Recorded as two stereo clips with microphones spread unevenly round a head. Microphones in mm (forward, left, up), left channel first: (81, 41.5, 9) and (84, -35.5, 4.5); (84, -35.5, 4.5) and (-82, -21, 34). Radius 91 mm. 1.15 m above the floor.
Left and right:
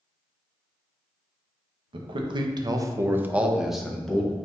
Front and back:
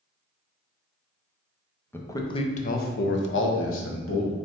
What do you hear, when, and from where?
1.9 s a man speaking: 85° right, 0.7 m; by 4.3 s 10° left, 1.1 m